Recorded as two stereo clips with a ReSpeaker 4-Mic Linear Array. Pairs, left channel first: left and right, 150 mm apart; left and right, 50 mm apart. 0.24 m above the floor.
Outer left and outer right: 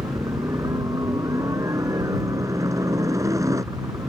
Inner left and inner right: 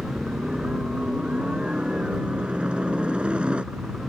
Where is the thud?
I don't hear a thud.